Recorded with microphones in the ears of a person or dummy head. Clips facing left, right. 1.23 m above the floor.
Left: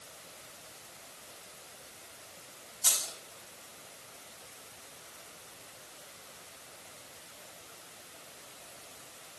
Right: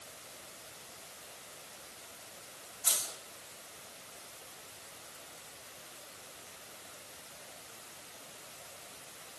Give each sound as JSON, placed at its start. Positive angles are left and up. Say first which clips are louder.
{"t": 2.8, "sound": "keys jangling", "louder": "left 1 dB", "side_deg": 80, "distance_m": 4.5}